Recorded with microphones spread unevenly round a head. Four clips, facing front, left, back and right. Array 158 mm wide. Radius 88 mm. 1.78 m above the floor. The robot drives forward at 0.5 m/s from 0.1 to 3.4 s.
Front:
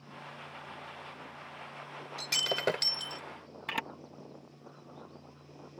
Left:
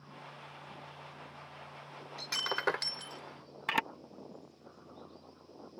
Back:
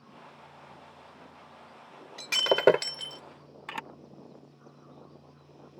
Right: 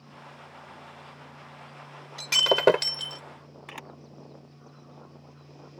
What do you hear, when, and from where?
2.2 s breaking glass: 135° right; by 3.2 s 140° right
3.7 s a camera shutter: 75° left